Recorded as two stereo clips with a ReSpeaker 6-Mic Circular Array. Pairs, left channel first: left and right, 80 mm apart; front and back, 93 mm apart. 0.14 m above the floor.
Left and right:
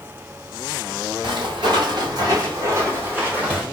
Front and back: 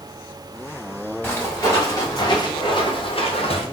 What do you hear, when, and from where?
1.2 s footsteps: 70° right, 2.5 m; by 3.6 s 10° right, 2 m